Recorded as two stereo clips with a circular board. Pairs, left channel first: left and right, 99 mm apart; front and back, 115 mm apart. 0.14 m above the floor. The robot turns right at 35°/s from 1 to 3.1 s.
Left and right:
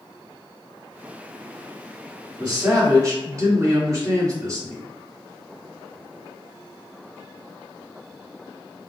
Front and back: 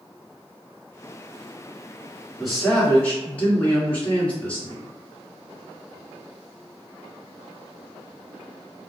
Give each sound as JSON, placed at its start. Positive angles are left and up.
{"t": 2.4, "sound": "a man speaking", "azimuth_deg": -90, "distance_m": 1.5}